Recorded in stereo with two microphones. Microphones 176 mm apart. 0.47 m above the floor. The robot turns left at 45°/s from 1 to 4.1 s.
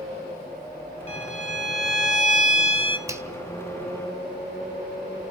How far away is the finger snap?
About 1.8 m.